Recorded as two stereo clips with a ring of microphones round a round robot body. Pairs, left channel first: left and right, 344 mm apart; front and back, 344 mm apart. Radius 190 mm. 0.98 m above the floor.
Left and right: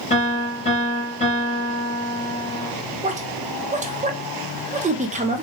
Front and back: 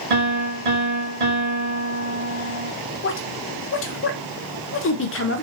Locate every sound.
0.1 s a piano: 165° left, 1.4 m
3.0 s a woman speaking: 30° right, 0.7 m